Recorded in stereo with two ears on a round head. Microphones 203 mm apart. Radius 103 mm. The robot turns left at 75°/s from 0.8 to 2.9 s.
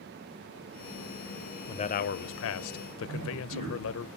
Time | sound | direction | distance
1.7 | a man speaking | 160° left | 0.6 m
3.1 | a man speaking | 80° right | 6 m